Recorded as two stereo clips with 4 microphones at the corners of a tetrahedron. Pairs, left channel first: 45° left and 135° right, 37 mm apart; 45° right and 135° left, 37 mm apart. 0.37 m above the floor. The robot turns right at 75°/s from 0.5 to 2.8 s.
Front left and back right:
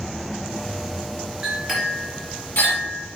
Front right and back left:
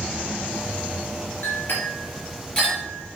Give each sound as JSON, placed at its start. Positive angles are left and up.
{"t": 1.4, "sound": "a clink", "azimuth_deg": -60, "distance_m": 3.5}